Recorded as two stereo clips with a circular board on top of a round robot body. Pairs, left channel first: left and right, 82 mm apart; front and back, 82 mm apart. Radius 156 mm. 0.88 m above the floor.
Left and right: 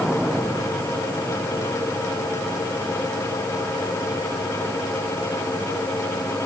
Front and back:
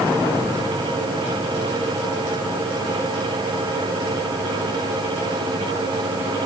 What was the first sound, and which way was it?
Only background noise.